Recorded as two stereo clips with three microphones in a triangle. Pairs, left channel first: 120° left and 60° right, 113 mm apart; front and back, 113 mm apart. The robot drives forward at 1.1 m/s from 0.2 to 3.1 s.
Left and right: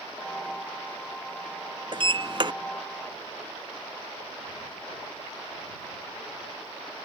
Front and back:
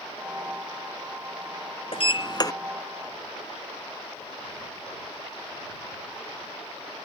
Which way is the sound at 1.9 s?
25° right.